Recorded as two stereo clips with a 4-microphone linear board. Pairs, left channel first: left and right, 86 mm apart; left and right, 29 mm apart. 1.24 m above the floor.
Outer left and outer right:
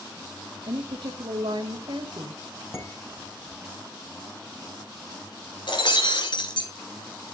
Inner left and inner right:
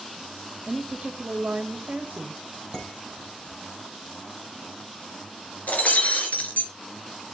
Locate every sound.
0.7 s a woman speaking: 75° right (ahead or behind), 1.6 m
2.7 s dishes clattering: 30° left (ahead or behind), 4.5 m
5.7 s breaking glass: 65° left (ahead or behind), 3 m